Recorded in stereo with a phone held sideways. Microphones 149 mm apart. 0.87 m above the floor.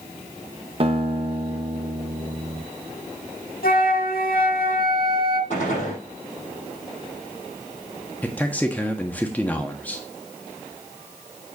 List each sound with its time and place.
0.8 s a guitar: 40° right (ahead or behind), 1.0 m
3.6 s a flute: 75° left (ahead or behind), 1.2 m
5.5 s a gunshot: 50° left (ahead or behind), 6 m
8.2 s a man speaking: 10° left (ahead or behind), 1.4 m